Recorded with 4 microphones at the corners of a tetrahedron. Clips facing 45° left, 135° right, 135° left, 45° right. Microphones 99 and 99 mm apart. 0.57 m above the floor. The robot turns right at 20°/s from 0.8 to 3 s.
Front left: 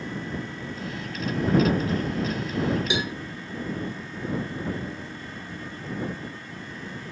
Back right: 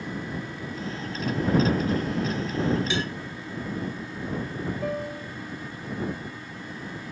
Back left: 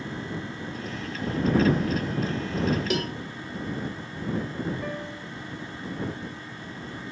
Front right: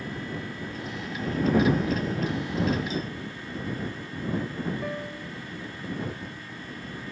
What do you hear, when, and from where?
2.9 s a cowbell: 120° left
4.8 s a piano: 130° right